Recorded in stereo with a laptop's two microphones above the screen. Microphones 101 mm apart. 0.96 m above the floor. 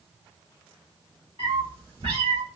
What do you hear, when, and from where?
1.4 s a cat meowing: 50° right (ahead or behind), 1.9 m; by 2.4 s 70° right (ahead or behind), 2 m